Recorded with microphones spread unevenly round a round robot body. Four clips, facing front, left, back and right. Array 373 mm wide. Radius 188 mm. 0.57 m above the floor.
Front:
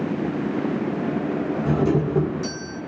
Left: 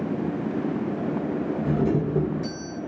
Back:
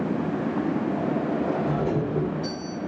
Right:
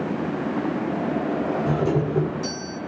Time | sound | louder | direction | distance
1.6 | a doorbell | left 1 dB, front 4 dB | 30° left | 6 m